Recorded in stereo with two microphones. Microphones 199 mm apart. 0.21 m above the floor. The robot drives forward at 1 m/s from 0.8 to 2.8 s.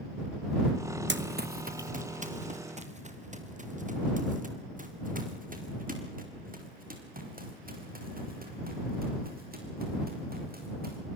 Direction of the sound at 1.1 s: 70° right (ahead or behind).